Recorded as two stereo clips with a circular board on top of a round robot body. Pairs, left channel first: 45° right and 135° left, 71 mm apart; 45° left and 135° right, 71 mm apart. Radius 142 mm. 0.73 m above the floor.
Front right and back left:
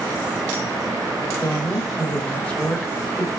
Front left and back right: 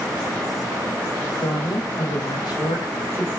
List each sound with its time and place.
1.4 s a woman speaking: 30° left, 4.5 m